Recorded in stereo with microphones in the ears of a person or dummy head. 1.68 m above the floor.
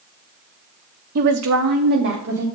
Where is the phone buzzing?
I don't hear a phone buzzing.